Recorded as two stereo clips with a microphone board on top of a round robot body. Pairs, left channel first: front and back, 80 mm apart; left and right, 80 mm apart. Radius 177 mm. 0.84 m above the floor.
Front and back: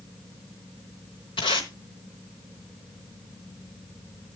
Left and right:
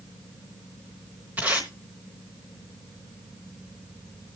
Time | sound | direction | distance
1.4 | tape being pulled | 20° right | 0.8 m